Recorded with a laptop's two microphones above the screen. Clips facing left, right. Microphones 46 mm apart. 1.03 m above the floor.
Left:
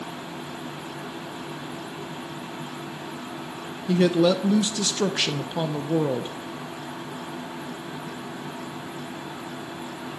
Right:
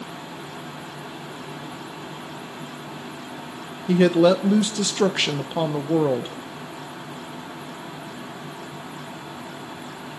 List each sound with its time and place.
3.9 s a woman speaking: 20° right (ahead or behind), 0.6 m